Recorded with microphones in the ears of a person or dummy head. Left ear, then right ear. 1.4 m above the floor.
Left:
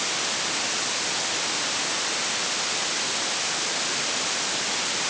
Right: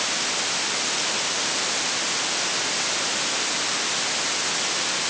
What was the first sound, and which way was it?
Only background noise.